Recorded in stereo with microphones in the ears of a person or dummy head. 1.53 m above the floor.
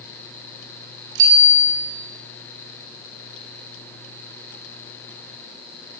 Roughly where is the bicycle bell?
Right.